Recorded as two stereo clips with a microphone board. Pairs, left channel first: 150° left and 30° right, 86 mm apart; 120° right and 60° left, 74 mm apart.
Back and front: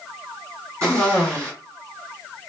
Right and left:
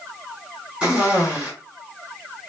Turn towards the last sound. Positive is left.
turn(degrees=-5)